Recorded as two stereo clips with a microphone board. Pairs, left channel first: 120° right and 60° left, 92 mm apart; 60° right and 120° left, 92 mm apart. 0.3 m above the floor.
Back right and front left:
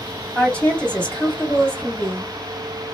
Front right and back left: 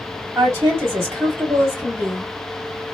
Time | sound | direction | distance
0.3 | a woman speaking | 165° left | 2.0 m